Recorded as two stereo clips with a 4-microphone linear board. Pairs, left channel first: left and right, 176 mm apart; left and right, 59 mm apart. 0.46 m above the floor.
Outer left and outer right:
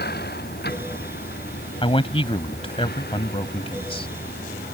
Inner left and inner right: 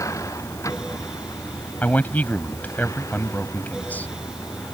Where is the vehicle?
65° left (ahead or behind).